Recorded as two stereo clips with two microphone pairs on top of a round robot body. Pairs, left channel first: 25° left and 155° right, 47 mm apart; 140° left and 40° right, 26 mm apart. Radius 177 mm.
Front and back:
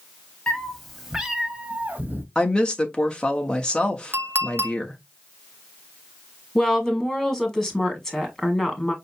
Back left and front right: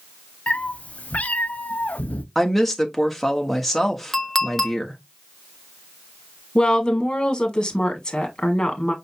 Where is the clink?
150° right, 1.2 m.